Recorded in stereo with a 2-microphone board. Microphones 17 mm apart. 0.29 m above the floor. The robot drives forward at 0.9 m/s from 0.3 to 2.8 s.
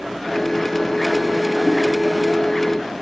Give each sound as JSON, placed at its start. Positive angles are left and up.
{"t": 1.7, "sound": "a giggle", "side_deg": -35, "distance_m": 6.0}